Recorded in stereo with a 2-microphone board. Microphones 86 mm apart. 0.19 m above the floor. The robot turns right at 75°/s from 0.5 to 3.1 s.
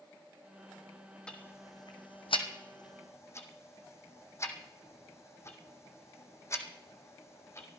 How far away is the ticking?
About 1.5 m.